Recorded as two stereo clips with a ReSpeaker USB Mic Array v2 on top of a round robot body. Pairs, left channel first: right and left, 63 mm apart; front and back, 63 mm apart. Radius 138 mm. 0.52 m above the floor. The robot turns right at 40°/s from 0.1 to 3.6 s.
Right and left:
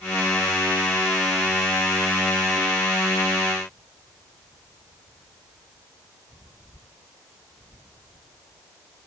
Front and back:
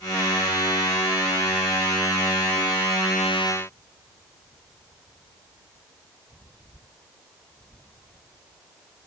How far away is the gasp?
No gasp in this recording.